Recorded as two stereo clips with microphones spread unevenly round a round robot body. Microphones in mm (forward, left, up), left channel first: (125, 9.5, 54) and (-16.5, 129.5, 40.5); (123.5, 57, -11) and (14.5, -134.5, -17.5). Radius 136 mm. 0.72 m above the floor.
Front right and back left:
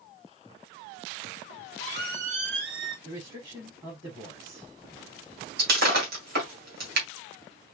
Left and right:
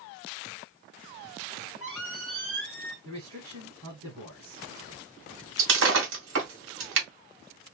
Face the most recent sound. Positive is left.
turn(degrees=-170)